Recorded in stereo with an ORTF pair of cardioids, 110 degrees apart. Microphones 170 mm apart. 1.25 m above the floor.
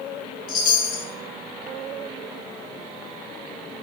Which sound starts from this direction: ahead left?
A chime, at 0.5 s.